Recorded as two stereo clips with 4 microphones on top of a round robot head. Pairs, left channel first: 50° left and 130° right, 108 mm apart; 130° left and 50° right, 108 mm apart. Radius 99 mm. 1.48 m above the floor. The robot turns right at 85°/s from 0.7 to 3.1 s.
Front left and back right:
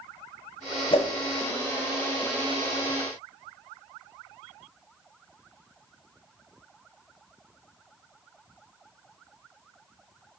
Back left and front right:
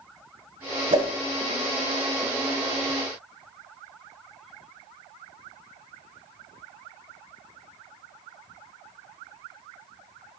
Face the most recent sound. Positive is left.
turn(degrees=-175)